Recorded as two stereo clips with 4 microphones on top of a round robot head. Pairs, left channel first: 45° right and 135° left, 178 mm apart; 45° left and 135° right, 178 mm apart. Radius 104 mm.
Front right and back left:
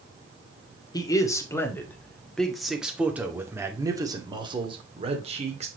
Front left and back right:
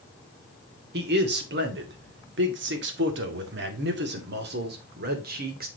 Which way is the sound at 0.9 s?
110° right.